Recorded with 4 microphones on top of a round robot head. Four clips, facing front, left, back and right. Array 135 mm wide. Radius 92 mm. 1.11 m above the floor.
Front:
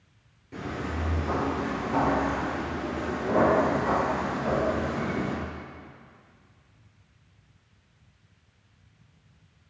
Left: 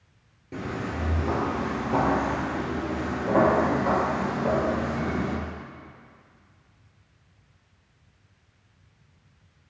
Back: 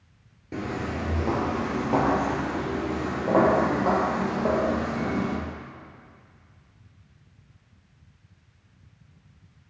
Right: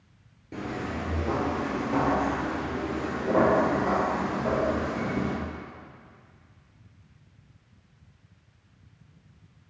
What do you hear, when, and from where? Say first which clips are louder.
0.5 s footsteps: left 1 dB, back 3 dB; 175° right, 1.4 m; by 5.3 s 170° left, 3.5 m